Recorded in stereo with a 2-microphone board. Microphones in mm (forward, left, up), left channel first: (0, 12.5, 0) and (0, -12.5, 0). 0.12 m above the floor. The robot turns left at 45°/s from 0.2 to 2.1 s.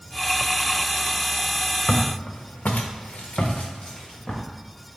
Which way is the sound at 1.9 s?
50° left (ahead or behind).